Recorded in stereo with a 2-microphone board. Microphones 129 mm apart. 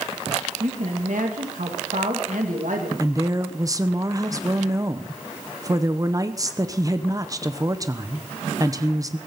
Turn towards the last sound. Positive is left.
turn(degrees=-25)  # may be behind; listen again after turning